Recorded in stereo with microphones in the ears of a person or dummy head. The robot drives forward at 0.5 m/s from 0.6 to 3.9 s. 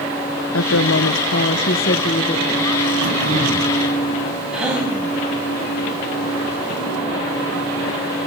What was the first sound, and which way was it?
A woman speaking, 85° left.